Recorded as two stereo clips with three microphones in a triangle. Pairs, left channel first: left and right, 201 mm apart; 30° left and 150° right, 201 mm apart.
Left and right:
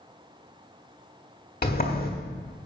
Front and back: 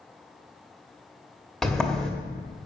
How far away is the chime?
No chime in this recording.